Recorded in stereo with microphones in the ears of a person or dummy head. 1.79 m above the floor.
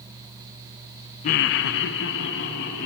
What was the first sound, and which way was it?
Laughter, 30° left (ahead or behind).